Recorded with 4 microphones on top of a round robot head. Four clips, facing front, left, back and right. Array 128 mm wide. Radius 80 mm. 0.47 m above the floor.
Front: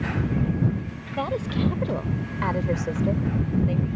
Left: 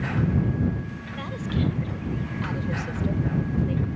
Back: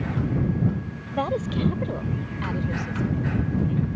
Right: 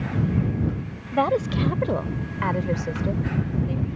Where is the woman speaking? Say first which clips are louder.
Right 10 dB, back 1 dB; 105° right; by 3.9 s 5° right.